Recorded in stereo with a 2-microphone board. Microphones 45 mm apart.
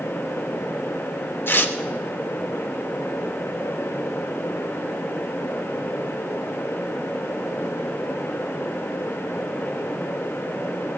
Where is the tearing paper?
50° left (ahead or behind), 0.9 m.